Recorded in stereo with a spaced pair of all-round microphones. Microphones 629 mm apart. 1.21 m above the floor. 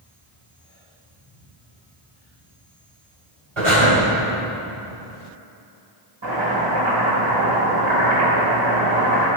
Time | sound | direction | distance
3.6 | breathing | 50° right (ahead or behind) | 3.5 m
6.2 | chopping | 45° right (ahead or behind) | 4 m